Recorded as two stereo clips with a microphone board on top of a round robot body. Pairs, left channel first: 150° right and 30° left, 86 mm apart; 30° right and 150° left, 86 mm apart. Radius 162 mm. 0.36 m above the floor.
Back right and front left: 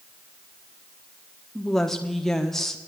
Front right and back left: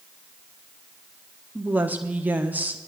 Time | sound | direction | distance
1.6 | a woman speaking | 130° left | 1.2 m